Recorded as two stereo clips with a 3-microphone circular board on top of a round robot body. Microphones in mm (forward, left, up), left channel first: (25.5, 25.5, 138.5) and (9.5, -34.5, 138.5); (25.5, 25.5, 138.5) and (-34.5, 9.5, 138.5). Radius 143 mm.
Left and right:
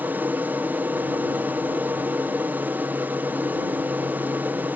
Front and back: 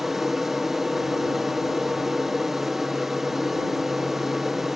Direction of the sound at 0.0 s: 85° right.